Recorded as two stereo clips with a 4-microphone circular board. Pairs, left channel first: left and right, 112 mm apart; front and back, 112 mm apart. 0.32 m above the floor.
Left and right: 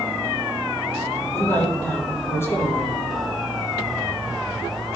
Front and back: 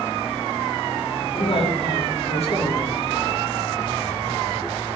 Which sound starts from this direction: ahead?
A man speaking, at 1.3 s.